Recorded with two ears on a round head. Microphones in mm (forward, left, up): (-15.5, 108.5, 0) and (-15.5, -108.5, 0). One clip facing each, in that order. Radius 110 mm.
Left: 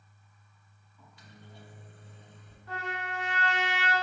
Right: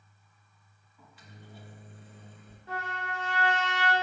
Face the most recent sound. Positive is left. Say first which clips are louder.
# even
turn(degrees=-20)  # may be behind; listen again after turning